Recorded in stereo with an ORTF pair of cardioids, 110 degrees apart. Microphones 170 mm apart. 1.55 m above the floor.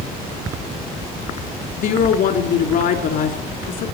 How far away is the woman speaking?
About 3.5 m.